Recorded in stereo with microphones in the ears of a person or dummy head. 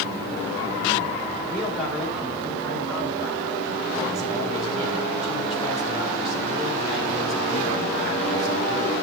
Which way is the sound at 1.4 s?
Centre (ahead or behind).